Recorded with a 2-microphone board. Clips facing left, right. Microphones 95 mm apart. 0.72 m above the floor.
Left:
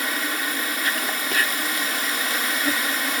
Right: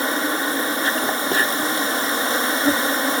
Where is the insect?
30° right (ahead or behind).